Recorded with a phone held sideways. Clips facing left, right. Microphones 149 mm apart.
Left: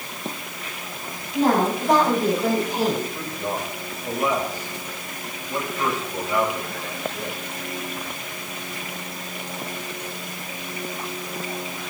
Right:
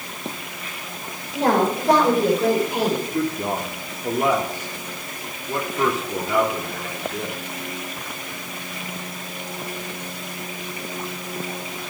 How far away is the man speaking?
About 3 m.